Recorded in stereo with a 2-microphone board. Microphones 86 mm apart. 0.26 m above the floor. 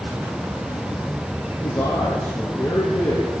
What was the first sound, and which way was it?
A man speaking, 45° left (ahead or behind).